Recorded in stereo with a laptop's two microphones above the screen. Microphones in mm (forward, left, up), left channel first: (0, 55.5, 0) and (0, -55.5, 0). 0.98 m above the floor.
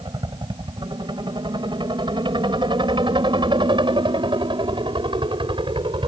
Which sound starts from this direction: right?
A helicopter, at 0.0 s.